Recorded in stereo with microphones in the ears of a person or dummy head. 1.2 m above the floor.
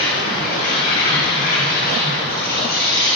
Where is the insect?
55° left (ahead or behind), 8 m.